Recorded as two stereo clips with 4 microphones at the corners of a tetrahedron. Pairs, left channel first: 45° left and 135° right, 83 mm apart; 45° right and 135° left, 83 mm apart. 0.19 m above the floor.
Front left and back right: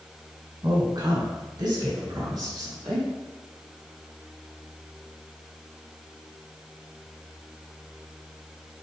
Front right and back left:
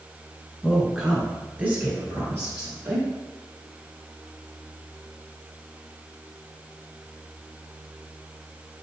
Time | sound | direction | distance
0.6 | a woman speaking | 135° right | 2.0 m